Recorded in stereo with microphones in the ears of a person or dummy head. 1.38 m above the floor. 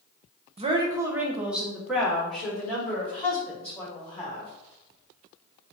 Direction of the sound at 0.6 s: 30° right (ahead or behind).